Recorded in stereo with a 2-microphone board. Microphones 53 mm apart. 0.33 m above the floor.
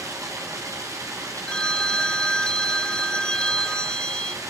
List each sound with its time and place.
0.0 s running water: 90° right, 9 m
1.5 s a phone ringing: 15° left (ahead or behind), 0.5 m